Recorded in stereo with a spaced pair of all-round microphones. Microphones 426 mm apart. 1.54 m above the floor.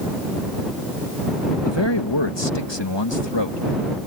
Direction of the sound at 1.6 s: 80° left.